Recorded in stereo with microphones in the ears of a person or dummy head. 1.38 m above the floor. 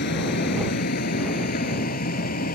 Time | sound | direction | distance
0.0 | a vehicle | 50° left (ahead or behind) | ?